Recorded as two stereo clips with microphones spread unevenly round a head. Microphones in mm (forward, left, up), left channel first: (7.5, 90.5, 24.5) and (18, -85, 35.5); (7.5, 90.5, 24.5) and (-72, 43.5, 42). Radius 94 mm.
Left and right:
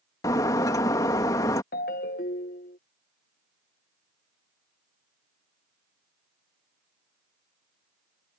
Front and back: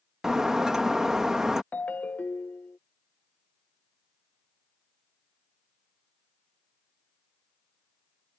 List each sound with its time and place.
0.2 s breaking glass: 155° left
1.7 s a ringtone: 110° left